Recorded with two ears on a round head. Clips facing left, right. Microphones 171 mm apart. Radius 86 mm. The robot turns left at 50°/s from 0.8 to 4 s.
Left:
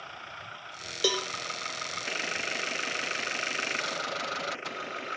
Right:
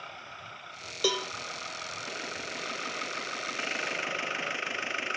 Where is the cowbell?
5° left (ahead or behind), 1.3 m; by 1.3 s 15° left (ahead or behind), 1.3 m.